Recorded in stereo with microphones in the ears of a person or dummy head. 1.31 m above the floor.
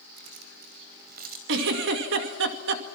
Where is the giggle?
65° right (ahead or behind), 2 m.